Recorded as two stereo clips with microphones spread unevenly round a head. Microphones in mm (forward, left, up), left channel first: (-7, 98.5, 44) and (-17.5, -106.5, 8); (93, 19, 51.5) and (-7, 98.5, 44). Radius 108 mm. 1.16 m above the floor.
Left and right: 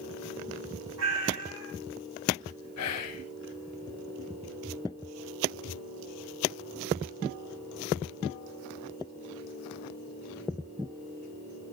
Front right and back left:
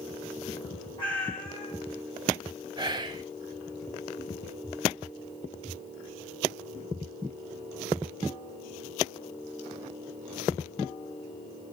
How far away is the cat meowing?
About 2.5 m.